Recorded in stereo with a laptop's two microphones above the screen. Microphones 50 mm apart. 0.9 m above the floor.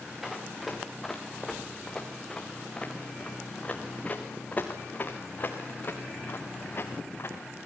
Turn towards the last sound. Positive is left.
turn(degrees=50)  # may be behind; listen again after turning